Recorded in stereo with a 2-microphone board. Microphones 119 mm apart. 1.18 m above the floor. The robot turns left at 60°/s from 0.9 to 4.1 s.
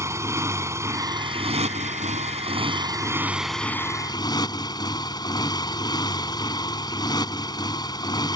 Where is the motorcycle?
25° right; by 8.4 s 145° left.